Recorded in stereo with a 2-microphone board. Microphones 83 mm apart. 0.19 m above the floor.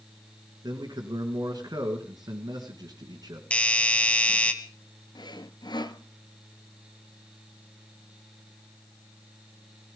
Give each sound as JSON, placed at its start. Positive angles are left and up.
{"t": 0.6, "sound": "a man speaking", "side_deg": -55, "distance_m": 2.5}
{"t": 3.5, "sound": "a doorbell", "side_deg": 15, "distance_m": 1.6}
{"t": 5.2, "sound": "sawing", "side_deg": 65, "distance_m": 0.9}